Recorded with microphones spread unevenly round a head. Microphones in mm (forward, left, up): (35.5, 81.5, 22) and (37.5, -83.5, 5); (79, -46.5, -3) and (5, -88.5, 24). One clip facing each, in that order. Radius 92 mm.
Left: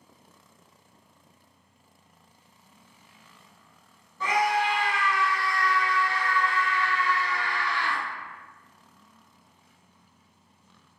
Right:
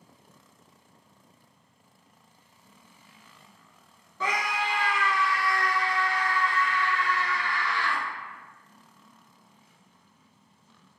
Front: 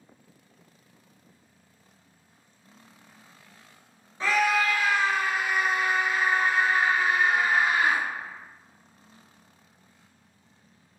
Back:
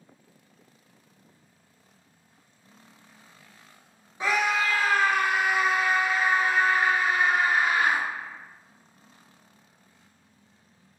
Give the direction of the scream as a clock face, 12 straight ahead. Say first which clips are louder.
Left 5 dB, front 1 dB; 2 o'clock.